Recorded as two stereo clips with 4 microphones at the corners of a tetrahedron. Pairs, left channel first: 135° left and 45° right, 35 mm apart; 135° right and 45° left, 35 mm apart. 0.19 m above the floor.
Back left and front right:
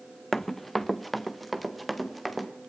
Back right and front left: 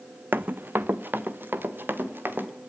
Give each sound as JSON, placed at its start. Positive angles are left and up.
{"t": 0.3, "sound": "running footsteps", "azimuth_deg": 55, "distance_m": 0.6}